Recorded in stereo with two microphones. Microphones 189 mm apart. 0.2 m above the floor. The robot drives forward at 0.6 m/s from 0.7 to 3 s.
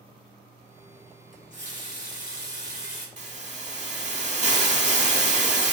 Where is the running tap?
45° left (ahead or behind), 1.3 m; by 3.1 s 50° left (ahead or behind), 1.2 m.